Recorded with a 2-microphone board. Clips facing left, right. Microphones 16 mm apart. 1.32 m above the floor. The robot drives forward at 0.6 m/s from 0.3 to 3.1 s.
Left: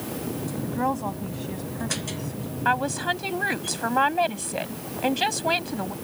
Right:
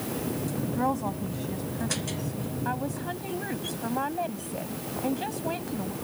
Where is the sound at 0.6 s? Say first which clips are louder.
Left 2 dB; 15° left (ahead or behind).